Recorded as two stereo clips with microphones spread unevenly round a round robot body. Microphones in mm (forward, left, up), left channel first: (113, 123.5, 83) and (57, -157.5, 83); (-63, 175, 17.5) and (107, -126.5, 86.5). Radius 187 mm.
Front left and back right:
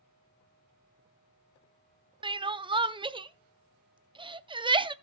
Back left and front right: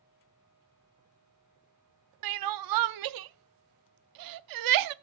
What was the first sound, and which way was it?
Crying, 25° right.